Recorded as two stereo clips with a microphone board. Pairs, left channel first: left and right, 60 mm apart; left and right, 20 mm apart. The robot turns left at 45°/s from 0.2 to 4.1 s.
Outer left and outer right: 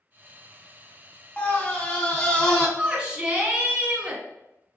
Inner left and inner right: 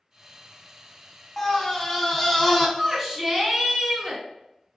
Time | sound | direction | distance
1.4 | a scream | 20° left (ahead or behind) | 1.0 m
2.8 | a shout | 15° right (ahead or behind) | 1.0 m